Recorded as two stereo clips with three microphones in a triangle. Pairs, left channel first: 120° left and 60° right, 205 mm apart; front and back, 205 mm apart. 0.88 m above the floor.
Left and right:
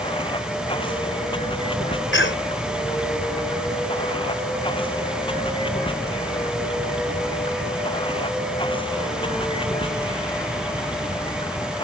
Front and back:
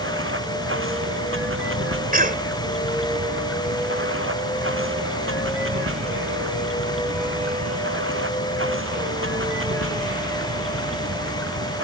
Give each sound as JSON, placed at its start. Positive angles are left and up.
{"t": 0.0, "sound": "running water", "azimuth_deg": -175}
{"t": 2.1, "sound": "a cough", "azimuth_deg": 135}